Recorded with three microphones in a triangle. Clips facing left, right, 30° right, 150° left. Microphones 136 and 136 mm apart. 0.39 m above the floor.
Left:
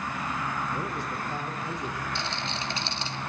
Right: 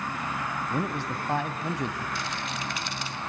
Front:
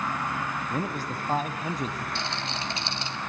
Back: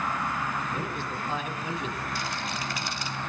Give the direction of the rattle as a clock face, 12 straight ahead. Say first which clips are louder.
Even, even; 11 o'clock.